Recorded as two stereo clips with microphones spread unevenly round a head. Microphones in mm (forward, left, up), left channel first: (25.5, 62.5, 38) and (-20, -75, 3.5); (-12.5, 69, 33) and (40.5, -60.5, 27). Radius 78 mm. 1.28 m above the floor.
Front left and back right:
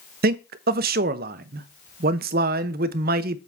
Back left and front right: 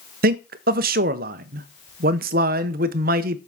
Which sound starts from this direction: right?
A man speaking, at 0.2 s.